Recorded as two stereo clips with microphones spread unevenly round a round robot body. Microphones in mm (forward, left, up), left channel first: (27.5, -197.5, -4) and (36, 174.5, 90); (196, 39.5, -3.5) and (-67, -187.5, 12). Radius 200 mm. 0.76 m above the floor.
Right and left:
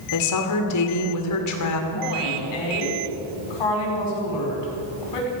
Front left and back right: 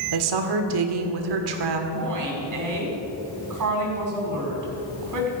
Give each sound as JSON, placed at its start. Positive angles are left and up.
{"t": 0.1, "sound": "a woman speaking", "azimuth_deg": -130, "distance_m": 2.0}
{"t": 1.9, "sound": "a woman speaking", "azimuth_deg": -105, "distance_m": 5.0}